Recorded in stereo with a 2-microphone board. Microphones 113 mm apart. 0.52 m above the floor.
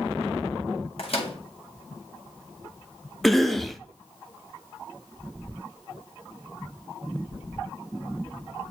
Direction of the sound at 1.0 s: 60° left (ahead or behind).